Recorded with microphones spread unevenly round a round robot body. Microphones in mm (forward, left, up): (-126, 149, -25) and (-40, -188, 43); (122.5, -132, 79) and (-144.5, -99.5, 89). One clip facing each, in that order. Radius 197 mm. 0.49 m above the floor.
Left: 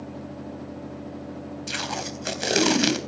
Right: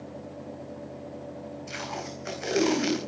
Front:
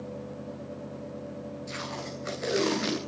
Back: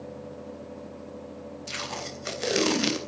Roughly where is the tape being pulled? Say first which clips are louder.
Left 4 dB, front 1 dB; behind left.